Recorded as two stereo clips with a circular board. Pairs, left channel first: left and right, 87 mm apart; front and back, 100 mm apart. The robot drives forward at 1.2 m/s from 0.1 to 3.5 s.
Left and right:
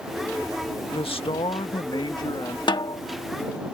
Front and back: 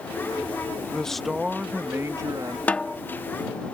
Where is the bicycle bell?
I don't hear a bicycle bell.